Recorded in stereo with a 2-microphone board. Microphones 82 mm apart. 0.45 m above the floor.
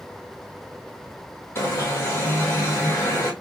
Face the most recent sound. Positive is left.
turn(degrees=30)  # may be behind; listen again after turning